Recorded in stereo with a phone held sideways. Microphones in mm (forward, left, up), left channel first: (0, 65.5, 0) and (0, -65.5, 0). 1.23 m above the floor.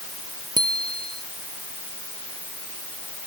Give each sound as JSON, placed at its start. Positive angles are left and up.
{"t": 0.6, "sound": "a bicycle bell", "side_deg": -35}